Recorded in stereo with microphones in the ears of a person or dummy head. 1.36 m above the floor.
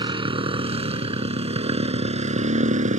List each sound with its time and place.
0.0 s a motorcycle: 25° right (ahead or behind); by 3.0 s 40° right (ahead or behind)